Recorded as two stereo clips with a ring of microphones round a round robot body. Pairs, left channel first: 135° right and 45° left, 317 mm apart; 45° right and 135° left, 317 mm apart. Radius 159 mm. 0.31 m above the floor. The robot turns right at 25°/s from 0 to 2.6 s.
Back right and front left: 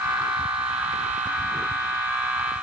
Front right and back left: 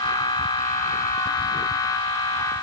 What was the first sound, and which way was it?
Only background noise.